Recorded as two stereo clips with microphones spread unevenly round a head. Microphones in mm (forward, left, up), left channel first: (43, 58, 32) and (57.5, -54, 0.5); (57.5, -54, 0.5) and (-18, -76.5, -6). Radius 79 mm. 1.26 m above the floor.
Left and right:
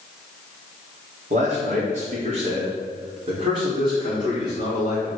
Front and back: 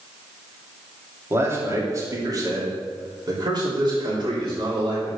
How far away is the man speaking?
About 3 m.